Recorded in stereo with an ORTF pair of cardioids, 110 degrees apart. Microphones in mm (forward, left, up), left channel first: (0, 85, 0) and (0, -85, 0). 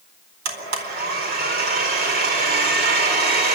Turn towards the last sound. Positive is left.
turn(degrees=-65)